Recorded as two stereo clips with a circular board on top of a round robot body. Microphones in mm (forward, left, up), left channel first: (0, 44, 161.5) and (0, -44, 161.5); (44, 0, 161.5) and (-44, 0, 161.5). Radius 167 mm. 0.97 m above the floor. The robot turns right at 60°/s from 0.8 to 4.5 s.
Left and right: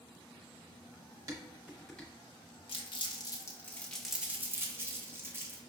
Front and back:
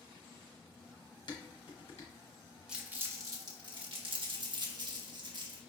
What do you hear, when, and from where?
1.3 s dishes clattering: 35° right, 1.0 m; by 2.1 s 15° left, 1.0 m
2.7 s crumpling: 95° left, 1.1 m; by 5.6 s 155° right, 1.1 m